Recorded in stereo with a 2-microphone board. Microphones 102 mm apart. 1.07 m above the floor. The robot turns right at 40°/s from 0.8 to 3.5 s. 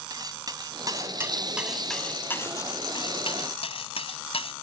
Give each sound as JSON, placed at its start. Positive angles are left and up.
{"t": 0.1, "sound": "cutlery clinking", "azimuth_deg": -40}